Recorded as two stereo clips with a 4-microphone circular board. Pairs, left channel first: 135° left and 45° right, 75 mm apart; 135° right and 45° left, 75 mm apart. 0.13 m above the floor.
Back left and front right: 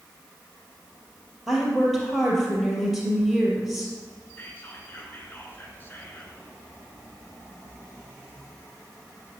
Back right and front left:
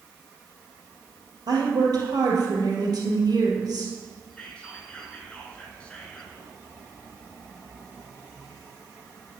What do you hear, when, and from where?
1.5 s a woman speaking: 40° left, 3 m
4.4 s whispering: 165° left, 1.8 m